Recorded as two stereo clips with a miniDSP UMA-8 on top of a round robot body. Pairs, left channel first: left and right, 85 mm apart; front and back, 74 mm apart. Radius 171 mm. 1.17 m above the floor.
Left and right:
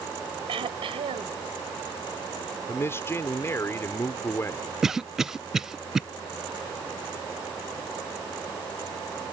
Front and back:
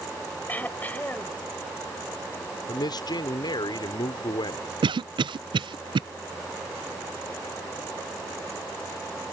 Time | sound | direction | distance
0.5 | throat clearing | 70° right | ?
2.7 | a man speaking | 30° left | ?
4.8 | a cough | 175° right | ?